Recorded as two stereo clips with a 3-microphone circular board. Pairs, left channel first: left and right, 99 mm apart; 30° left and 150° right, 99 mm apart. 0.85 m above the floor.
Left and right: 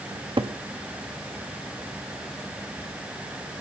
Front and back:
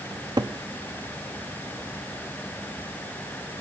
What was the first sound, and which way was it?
A cupboard door, 110° right.